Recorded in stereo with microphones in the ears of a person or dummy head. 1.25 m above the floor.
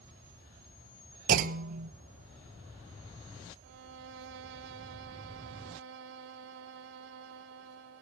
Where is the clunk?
50° right (ahead or behind), 1.2 m.